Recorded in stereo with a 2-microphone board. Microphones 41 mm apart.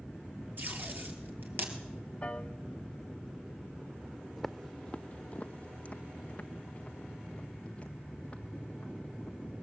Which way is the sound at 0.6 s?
50° right (ahead or behind).